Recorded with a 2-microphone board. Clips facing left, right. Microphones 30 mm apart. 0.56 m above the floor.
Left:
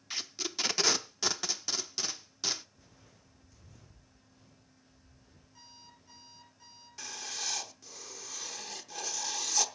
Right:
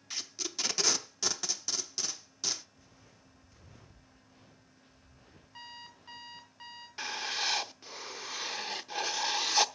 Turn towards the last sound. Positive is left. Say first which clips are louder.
# right 7 dB
turn(degrees=-35)  # may be behind; listen again after turning